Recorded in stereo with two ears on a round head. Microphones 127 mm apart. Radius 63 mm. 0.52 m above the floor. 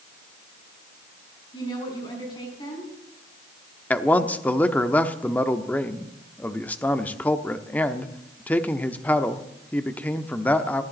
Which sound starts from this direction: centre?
A man speaking, at 3.9 s.